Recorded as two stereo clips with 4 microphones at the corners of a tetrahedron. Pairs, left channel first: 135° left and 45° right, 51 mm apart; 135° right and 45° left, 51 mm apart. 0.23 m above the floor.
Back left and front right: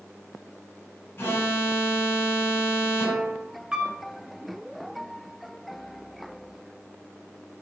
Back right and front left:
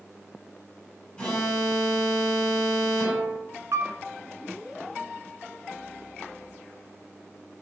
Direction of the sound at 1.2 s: 160° left.